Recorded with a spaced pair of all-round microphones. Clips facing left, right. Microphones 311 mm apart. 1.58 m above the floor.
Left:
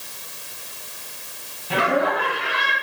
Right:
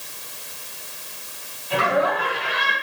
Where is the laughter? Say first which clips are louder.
Even; 60° left (ahead or behind), 2.5 m; by 2.7 s 55° left (ahead or behind), 3.5 m.